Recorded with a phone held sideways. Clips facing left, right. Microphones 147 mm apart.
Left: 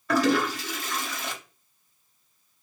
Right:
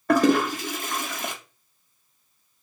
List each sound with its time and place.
0.1 s a toilet flushing: 50° right (ahead or behind), 1.1 m